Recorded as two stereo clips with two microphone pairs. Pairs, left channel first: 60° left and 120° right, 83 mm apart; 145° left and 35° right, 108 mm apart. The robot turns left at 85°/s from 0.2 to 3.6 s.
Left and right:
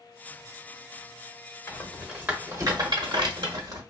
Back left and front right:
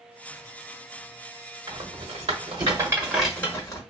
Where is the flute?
I don't hear a flute.